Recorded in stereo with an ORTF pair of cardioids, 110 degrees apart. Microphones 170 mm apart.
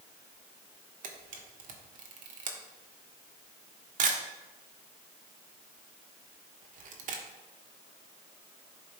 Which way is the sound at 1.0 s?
55° right.